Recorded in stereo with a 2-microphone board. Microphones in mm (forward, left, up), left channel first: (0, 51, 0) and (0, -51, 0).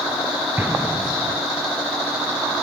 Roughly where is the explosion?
Right.